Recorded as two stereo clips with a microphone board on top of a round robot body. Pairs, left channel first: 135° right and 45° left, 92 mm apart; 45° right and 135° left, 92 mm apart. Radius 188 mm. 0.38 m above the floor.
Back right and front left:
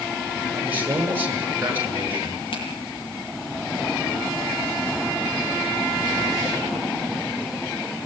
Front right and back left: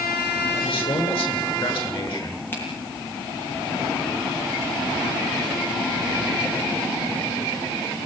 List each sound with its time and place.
0.5 s a man speaking: 20° right, 8.5 m
2.5 s a finger snap: 115° right, 10 m